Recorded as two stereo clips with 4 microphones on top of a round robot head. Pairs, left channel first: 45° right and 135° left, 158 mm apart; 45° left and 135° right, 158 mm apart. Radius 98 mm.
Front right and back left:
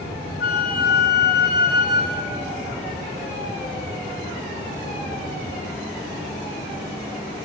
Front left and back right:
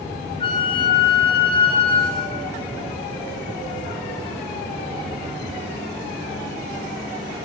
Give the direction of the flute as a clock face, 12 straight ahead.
1 o'clock.